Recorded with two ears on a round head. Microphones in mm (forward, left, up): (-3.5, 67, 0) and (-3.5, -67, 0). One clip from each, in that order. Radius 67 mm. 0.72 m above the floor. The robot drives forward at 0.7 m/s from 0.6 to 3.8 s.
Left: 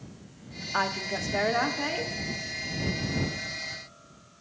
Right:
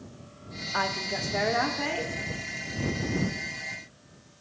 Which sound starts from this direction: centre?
A woman speaking, at 0.7 s.